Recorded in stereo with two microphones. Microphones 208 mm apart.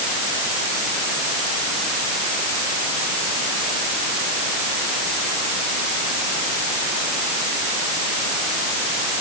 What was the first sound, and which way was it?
Only background noise.